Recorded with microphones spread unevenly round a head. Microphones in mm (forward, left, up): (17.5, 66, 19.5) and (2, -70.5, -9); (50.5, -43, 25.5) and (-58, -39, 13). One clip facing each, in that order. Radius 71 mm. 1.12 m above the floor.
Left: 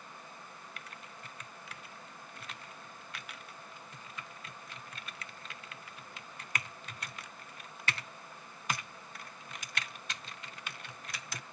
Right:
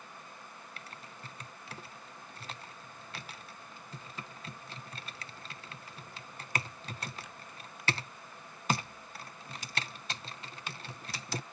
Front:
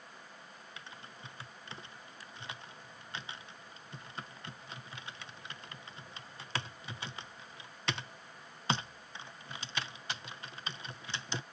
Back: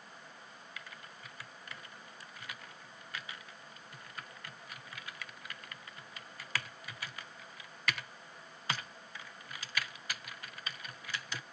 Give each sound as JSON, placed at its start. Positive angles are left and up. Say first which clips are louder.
{"t": 0.8, "sound": "typing on a keyboard", "louder": "right 1 dB, front 1 dB", "azimuth_deg": -65}